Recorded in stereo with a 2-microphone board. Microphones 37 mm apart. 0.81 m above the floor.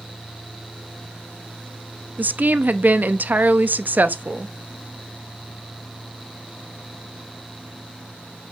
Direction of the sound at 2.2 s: 50° right (ahead or behind).